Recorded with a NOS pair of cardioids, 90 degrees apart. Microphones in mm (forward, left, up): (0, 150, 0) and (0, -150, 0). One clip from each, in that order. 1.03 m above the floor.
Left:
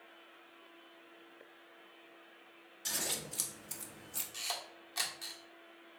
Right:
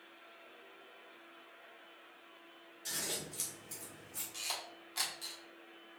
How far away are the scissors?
About 1.1 m.